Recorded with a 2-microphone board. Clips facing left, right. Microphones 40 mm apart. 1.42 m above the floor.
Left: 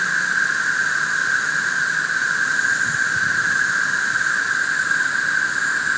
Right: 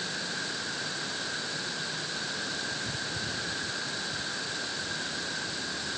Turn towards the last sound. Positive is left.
turn(degrees=75)  # may be behind; listen again after turning